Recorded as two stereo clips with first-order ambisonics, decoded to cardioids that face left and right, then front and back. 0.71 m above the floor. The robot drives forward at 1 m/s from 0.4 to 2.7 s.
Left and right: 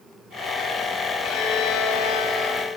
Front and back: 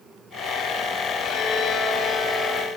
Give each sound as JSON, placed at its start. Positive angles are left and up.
{"t": 1.2, "sound": "a violin", "azimuth_deg": 55, "distance_m": 3.5}